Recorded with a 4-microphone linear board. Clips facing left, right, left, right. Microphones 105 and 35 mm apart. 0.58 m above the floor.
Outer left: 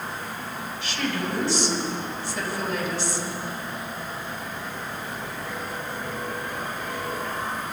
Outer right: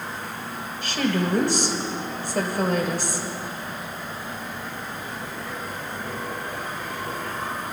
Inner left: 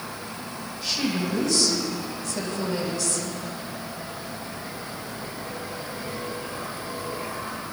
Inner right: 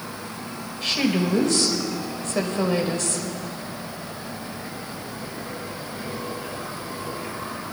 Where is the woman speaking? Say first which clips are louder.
Outer right 5 dB, inner right 4 dB; 50° right (ahead or behind), 2.5 m.